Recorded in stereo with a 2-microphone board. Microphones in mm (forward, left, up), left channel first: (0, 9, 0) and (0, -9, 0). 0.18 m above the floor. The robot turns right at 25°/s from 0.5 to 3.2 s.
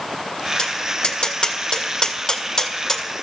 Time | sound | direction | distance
0.6 | tapping | 70° left (ahead or behind) | 1.8 m